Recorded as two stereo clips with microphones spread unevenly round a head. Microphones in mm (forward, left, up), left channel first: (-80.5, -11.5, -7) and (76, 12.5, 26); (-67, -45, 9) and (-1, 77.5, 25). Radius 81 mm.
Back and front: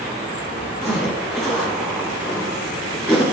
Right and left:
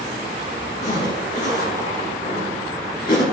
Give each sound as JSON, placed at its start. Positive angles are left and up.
{"t": 0.8, "sound": "a zipper", "azimuth_deg": -80, "distance_m": 5.0}